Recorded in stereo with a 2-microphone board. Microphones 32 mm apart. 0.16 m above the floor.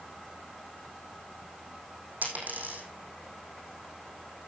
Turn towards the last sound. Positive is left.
turn(degrees=-60)  # may be behind; listen again after turning